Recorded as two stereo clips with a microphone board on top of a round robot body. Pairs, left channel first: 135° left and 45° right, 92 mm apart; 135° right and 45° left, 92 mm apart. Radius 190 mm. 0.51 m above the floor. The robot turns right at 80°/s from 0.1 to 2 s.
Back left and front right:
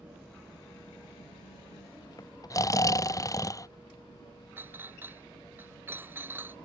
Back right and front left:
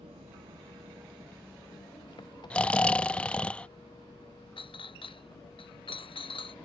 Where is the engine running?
35° left; by 6.7 s 175° right.